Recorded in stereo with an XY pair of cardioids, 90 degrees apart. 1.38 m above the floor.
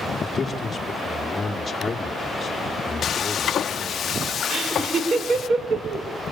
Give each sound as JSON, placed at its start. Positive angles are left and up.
{"t": 0.2, "sound": "a man speaking", "azimuth_deg": 25, "distance_m": 4.0}
{"t": 3.0, "sound": "frying", "azimuth_deg": 60, "distance_m": 0.9}
{"t": 4.5, "sound": "laughter", "azimuth_deg": -55, "distance_m": 6.0}